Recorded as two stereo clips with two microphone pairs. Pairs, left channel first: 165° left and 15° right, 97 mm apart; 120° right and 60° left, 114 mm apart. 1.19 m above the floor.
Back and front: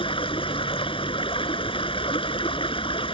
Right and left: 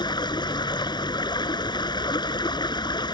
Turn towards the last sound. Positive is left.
turn(degrees=-170)